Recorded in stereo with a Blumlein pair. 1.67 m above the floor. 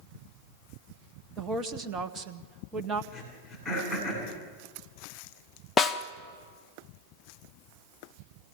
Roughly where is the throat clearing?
Ahead.